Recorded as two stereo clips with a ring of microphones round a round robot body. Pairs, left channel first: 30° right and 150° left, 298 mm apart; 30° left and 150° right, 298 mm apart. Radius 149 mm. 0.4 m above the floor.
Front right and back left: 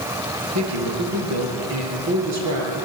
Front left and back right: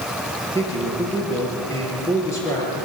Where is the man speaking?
110° left, 7 m.